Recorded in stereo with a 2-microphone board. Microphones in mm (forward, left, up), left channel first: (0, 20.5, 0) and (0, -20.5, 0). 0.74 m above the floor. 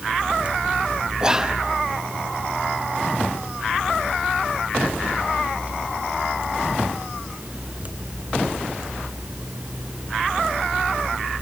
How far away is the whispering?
About 1.1 m.